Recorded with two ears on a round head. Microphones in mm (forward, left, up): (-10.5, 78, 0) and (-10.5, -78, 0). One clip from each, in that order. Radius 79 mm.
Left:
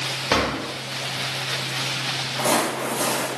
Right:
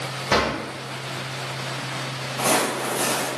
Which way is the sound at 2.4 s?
Centre (ahead or behind).